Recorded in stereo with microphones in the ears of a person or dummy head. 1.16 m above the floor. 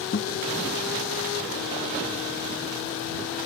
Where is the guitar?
45° left (ahead or behind).